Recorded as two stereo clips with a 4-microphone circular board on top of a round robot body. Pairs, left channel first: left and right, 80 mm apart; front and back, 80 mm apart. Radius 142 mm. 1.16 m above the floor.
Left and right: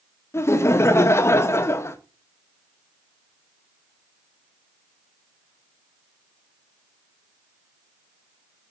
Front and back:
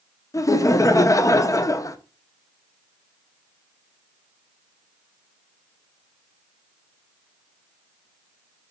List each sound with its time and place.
0.3 s laughter: 40° left, 1.1 m